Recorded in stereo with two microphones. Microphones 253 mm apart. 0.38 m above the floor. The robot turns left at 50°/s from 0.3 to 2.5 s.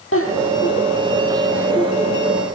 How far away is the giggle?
About 5.5 m.